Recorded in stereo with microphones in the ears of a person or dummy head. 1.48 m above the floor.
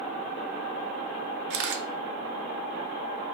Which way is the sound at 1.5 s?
65° right (ahead or behind).